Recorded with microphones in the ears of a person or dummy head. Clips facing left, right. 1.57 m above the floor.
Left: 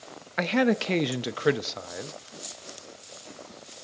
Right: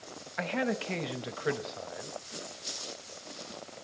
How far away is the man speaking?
About 0.6 m.